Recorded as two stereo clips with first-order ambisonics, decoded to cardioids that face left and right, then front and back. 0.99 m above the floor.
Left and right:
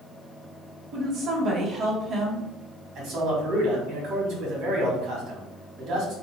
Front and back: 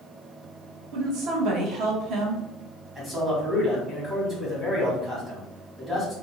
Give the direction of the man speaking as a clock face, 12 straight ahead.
4 o'clock.